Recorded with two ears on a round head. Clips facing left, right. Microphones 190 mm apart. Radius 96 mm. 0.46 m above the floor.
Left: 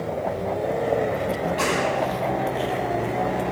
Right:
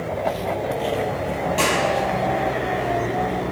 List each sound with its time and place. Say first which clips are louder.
1.6 s a clap: right 2 dB; 65° right (ahead or behind), 8.5 m